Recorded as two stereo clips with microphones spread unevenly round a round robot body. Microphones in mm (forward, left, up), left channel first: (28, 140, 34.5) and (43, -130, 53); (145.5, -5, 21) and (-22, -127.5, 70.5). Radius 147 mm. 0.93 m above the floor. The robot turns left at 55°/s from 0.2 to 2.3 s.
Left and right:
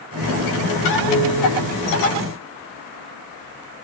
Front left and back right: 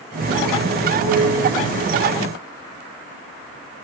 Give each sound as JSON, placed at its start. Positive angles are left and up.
{"t": 1.0, "sound": "a piano", "azimuth_deg": -130, "distance_m": 4.5}